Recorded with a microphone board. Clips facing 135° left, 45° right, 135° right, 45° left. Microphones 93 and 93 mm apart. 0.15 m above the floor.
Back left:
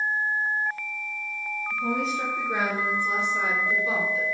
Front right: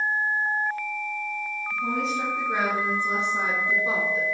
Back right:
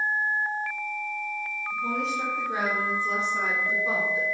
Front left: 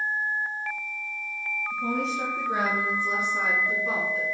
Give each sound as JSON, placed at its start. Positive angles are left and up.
{"t": 1.7, "sound": "a woman speaking", "azimuth_deg": 50, "distance_m": 1.6}